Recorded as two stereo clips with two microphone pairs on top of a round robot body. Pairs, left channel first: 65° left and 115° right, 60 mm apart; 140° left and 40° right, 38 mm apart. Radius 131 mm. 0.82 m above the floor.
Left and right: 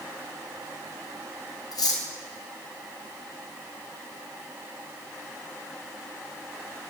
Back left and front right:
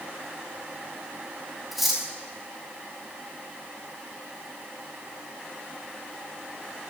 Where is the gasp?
No gasp in this recording.